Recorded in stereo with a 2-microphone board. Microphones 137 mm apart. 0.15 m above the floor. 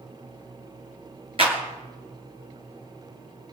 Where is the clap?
45° right (ahead or behind), 2 m.